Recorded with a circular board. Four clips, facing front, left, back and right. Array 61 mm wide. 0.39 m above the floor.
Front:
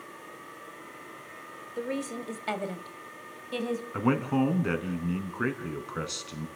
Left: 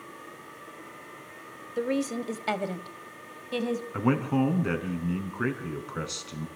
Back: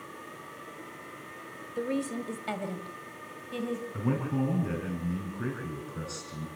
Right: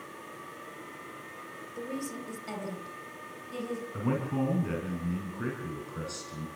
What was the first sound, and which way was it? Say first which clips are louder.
A woman speaking: left 9 dB, back 2 dB; 85° left.